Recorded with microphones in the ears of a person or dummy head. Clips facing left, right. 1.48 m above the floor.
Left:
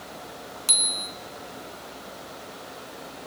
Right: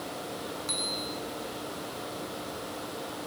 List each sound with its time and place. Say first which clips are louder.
0.7 s a bicycle bell: right 3 dB; 45° left (ahead or behind), 2 m